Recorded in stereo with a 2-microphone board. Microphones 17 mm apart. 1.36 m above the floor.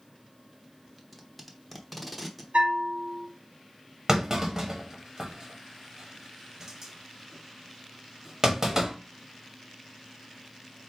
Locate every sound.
1.0 s tape being pulled: centre (ahead or behind), 0.8 m
2.5 s a bell: 80° right, 0.9 m
4.1 s a clunk: 30° right (ahead or behind), 1.2 m